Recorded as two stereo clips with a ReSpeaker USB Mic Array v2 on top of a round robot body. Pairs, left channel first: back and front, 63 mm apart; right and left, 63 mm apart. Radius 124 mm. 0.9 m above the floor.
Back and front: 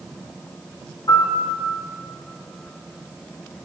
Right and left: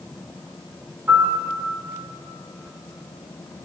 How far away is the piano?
About 3.5 m.